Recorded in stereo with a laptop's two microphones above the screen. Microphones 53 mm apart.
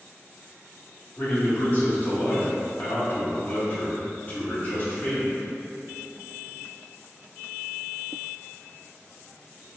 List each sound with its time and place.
1.2 s a man speaking: 40° left (ahead or behind), 1.6 m